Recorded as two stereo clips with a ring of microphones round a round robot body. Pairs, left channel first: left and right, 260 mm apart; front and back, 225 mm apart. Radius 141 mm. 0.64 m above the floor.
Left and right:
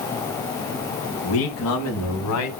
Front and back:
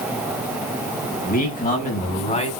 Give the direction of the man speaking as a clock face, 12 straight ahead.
10 o'clock.